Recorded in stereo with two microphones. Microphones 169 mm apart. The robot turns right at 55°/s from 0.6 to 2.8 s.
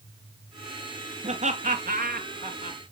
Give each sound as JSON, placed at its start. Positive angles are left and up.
{"t": 1.2, "sound": "laughter", "side_deg": -35, "distance_m": 1.8}